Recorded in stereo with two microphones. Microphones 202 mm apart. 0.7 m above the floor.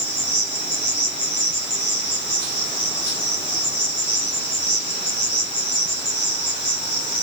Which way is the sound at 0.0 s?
65° left (ahead or behind).